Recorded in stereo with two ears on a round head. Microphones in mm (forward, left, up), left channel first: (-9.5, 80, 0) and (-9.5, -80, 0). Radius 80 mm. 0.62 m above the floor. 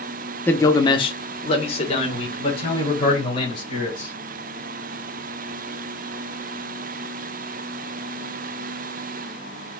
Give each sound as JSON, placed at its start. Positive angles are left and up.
{"t": 0.5, "sound": "a man speaking", "side_deg": 10, "distance_m": 0.6}